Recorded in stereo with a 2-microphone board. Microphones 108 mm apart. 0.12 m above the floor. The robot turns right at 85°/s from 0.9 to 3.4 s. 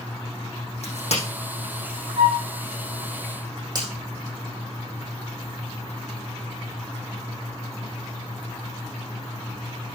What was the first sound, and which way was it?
A crack, 75° left (ahead or behind).